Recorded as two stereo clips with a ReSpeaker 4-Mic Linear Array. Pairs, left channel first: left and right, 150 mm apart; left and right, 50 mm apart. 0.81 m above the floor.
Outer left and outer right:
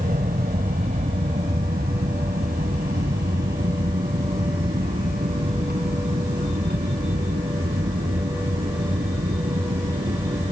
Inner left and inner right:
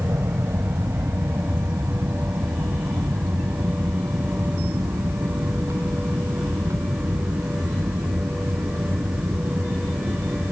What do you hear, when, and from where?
0.0 s an aircraft: 70° right (ahead or behind); by 10.5 s 75° right (ahead or behind)